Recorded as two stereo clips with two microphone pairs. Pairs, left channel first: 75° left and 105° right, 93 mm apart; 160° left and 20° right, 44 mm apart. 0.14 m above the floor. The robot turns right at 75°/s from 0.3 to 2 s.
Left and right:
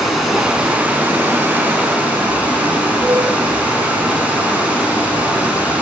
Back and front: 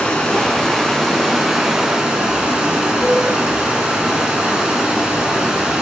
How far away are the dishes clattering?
About 1.1 m.